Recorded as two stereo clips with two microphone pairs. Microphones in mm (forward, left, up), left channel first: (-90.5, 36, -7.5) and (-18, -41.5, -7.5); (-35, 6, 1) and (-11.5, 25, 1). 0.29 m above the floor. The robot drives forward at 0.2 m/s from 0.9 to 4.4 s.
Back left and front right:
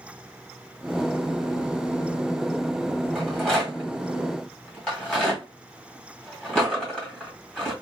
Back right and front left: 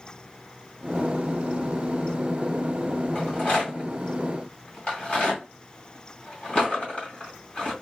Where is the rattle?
145° right, 1.7 m; by 7.7 s 150° right, 1.9 m.